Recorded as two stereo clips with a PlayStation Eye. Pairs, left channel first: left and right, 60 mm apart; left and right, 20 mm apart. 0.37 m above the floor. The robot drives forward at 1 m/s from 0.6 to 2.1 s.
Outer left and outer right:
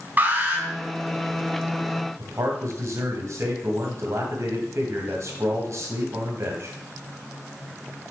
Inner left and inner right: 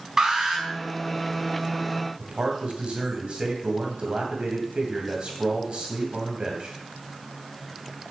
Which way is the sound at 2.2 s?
55° right (ahead or behind).